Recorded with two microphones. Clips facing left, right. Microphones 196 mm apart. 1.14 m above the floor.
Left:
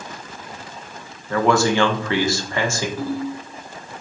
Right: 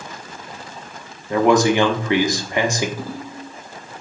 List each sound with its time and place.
1.3 s a man speaking: 15° right (ahead or behind), 1.0 m
3.0 s a ringtone: 10° right (ahead or behind), 3 m